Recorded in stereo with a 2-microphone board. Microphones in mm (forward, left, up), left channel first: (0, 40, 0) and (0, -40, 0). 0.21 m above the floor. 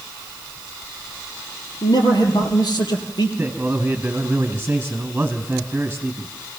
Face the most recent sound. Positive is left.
turn(degrees=-20)  # may be behind; listen again after turning